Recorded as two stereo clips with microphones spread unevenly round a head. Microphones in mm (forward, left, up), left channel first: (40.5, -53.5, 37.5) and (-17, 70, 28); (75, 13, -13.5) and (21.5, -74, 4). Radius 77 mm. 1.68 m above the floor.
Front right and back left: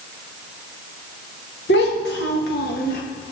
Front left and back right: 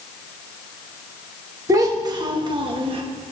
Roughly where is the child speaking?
Right.